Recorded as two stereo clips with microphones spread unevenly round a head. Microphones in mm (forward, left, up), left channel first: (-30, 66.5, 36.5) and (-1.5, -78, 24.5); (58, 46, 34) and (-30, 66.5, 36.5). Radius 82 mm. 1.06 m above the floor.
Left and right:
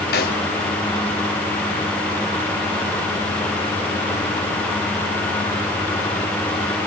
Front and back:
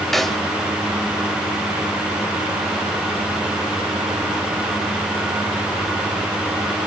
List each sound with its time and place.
0.1 s a snare drum: 75° left, 1.8 m